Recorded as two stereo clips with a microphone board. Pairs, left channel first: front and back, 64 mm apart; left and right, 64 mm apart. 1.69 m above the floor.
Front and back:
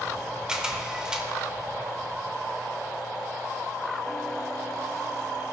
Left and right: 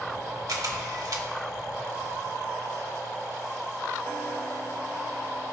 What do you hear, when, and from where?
0.5 s a camera shutter: 100° right, 1.5 m